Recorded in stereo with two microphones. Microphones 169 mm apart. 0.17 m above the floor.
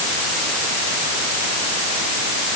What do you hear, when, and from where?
Only background noise.